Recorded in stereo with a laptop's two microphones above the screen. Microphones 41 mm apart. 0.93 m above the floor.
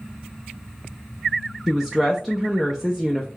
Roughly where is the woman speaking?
Centre.